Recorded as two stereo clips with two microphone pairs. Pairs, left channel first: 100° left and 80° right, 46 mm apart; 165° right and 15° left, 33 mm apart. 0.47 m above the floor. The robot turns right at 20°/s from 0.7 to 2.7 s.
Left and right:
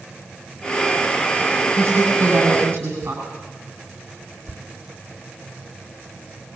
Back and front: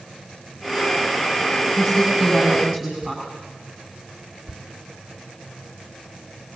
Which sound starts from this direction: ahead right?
A woman speaking, at 1.8 s.